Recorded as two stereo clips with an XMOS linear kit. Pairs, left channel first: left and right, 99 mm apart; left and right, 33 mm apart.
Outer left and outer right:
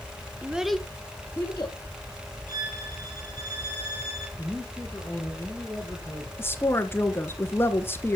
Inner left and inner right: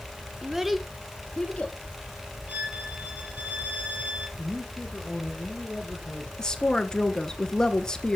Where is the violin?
40° right (ahead or behind), 3 m.